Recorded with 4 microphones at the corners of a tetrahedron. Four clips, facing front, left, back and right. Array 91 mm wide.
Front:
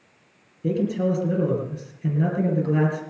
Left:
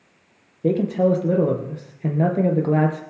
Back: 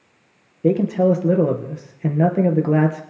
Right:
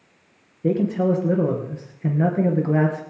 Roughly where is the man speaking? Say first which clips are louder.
Left 2 dB, back 7 dB; behind left.